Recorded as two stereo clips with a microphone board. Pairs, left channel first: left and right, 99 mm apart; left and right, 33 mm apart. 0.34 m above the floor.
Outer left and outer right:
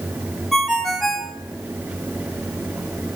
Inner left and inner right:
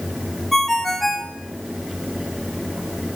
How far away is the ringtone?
About 1.8 m.